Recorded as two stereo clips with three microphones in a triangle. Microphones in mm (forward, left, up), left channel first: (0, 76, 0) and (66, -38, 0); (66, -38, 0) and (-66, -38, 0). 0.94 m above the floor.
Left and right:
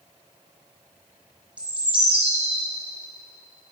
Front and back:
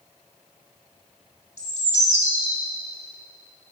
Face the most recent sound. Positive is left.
turn(degrees=20)